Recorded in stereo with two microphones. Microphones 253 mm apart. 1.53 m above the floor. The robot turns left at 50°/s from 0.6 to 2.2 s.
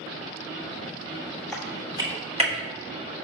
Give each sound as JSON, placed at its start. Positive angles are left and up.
{"t": 1.5, "sound": "typing on a keyboard", "side_deg": 5, "distance_m": 2.5}